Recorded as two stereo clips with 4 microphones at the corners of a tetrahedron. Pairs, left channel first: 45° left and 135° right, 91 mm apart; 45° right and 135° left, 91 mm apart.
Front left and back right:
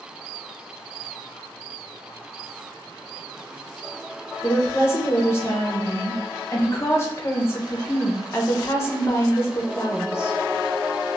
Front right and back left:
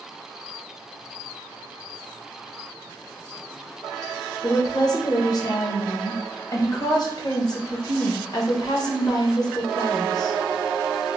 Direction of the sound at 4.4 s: 15° right.